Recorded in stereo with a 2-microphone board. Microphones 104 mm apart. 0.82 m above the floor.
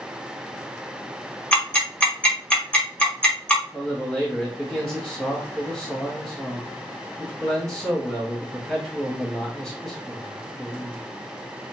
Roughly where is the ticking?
Centre.